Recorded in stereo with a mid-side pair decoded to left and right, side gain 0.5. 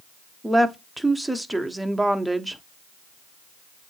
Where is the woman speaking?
5° right, 1.1 m.